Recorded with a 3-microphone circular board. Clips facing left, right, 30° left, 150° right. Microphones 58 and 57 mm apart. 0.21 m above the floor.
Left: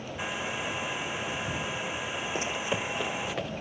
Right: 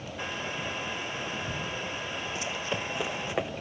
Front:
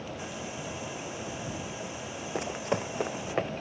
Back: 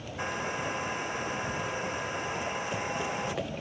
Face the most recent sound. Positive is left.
turn(degrees=-25)